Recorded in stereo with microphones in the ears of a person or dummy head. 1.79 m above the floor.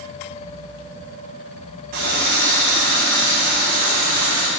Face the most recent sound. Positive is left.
turn(degrees=-55)  # may be behind; listen again after turning